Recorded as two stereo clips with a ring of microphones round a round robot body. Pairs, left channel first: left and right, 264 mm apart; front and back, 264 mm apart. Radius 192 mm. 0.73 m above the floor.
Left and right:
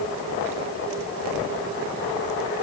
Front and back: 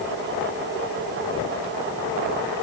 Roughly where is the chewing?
No chewing in this recording.